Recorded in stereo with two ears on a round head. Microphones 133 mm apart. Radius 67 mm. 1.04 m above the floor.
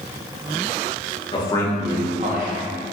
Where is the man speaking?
30° left (ahead or behind), 0.7 m; by 2.7 s 70° right (ahead or behind), 0.8 m.